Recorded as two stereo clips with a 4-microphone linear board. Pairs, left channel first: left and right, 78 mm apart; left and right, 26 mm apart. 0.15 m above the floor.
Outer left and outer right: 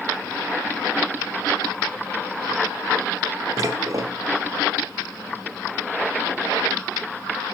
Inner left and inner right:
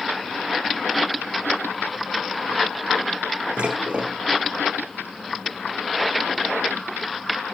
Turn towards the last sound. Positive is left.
turn(degrees=-50)  # may be behind; listen again after turning